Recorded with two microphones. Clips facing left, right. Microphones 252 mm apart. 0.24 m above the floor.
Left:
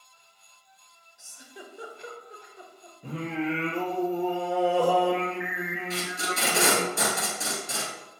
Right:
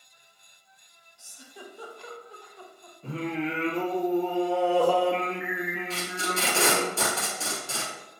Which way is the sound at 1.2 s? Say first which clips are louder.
Even; 20° left (ahead or behind).